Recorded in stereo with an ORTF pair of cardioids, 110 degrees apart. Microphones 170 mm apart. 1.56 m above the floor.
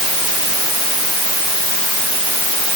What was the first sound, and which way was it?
Only background noise.